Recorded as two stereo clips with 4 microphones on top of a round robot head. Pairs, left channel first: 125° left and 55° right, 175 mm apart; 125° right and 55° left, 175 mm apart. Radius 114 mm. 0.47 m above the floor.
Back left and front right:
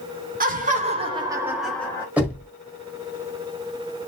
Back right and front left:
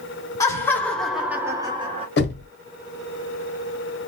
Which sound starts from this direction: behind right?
Knocking, at 2.2 s.